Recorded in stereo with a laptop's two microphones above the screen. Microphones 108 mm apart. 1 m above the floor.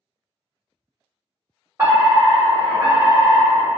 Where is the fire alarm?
25° right (ahead or behind), 1.5 m.